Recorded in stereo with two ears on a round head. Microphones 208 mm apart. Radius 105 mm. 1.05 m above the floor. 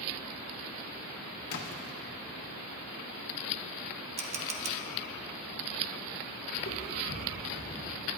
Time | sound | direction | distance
1.5 | a splash | 65° left (ahead or behind) | 1.4 m
4.2 | a camera shutter | 30° right (ahead or behind) | 1.0 m
6.5 | footsteps | 40° left (ahead or behind) | 3.5 m